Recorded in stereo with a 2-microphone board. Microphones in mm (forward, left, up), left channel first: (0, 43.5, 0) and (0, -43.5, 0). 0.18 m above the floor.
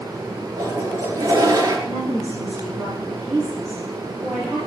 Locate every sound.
0.6 s a toilet flushing: 35° right (ahead or behind), 3.5 m
1.9 s a woman speaking: 5° left (ahead or behind), 4 m